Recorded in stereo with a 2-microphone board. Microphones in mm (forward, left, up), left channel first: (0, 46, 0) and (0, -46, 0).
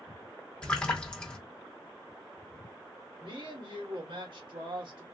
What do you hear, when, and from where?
0.6 s a splash: 10° left (ahead or behind), 1.2 m
3.2 s a woman speaking: 70° right (ahead or behind), 2 m